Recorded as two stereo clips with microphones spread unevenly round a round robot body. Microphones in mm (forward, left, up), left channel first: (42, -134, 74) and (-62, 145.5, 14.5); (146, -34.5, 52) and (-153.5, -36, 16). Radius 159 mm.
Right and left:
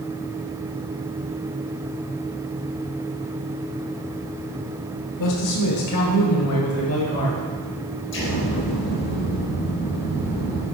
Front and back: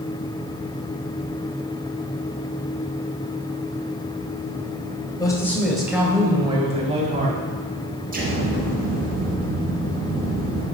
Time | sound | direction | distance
5.2 | a man speaking | 80° right | 1.5 m
8.1 | an explosion | 120° right | 4.5 m